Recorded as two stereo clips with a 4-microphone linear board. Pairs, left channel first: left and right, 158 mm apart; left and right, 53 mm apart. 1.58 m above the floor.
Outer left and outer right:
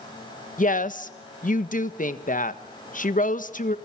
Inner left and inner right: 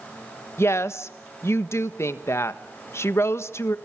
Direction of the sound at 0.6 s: 55° left (ahead or behind).